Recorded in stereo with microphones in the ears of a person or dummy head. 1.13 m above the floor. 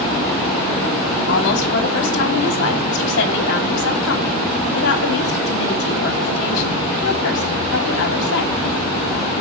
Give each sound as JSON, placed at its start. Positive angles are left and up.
{"t": 1.3, "sound": "a woman speaking", "side_deg": 65, "distance_m": 3.0}